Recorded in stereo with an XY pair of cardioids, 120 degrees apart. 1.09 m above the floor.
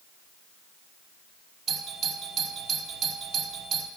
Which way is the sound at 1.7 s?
55° right.